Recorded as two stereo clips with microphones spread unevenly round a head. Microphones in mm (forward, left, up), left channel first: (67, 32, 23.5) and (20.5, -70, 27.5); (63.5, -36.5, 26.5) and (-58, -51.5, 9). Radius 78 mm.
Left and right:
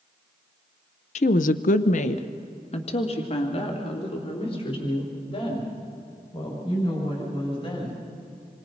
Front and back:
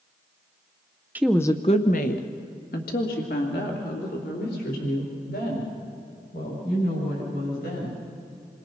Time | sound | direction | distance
1.1 | a woman speaking | 110° left | 0.6 m